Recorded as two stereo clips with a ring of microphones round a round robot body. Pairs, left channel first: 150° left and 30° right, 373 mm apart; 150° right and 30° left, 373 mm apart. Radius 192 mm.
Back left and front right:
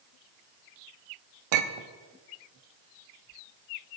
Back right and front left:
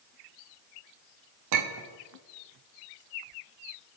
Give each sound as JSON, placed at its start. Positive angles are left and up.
{"t": 1.5, "sound": "a clink", "azimuth_deg": -10, "distance_m": 0.8}